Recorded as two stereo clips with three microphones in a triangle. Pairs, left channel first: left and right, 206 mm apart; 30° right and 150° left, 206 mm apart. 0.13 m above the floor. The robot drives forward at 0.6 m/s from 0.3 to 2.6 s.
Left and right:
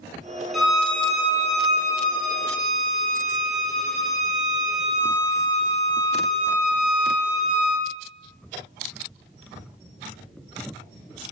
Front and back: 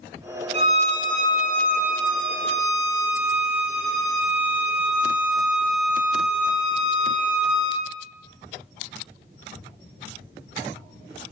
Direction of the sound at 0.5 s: 175° right.